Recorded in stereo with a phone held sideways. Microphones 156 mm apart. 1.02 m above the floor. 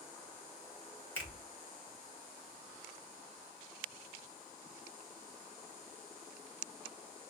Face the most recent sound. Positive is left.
turn(degrees=15)  # may be behind; listen again after turning